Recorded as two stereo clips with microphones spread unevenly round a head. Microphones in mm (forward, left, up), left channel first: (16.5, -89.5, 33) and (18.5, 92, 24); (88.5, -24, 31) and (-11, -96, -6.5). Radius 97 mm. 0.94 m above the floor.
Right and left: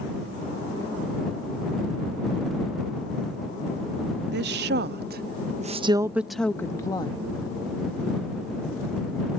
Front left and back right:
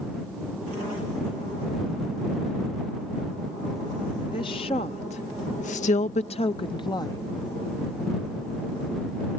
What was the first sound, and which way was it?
A woman speaking, 105° left.